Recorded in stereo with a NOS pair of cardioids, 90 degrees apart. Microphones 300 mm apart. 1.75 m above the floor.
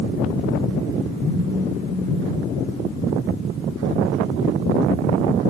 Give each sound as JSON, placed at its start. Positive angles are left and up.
{"t": 1.2, "sound": "a phone buzzing", "azimuth_deg": 25, "distance_m": 7.5}